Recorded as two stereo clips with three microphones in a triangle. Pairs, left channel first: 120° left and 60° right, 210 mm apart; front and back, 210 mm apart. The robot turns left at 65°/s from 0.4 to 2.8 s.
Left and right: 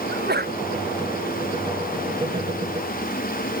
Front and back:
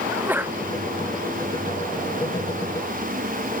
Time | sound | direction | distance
0.1 | a sneeze | 100° right | ?